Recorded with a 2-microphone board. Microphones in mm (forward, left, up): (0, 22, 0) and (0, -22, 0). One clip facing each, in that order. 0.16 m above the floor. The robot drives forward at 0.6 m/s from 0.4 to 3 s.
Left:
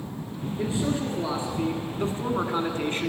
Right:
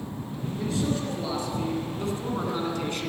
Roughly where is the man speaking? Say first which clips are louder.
Left 1 dB; left.